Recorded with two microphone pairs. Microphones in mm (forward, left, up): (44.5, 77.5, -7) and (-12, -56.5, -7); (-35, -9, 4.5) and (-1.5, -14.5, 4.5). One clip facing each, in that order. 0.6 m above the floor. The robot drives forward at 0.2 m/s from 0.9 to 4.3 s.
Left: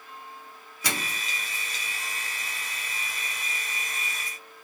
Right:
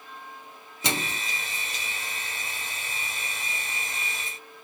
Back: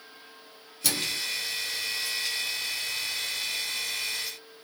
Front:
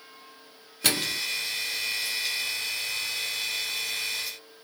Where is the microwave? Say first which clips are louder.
Right 3 dB, front 3 dB; 45° right, 0.6 m; by 1.2 s 55° right, 0.5 m.